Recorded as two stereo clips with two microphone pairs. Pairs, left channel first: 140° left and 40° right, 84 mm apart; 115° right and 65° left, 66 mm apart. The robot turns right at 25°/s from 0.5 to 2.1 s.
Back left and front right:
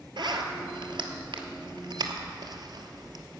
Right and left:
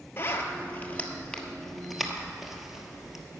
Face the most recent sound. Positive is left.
turn(degrees=-20)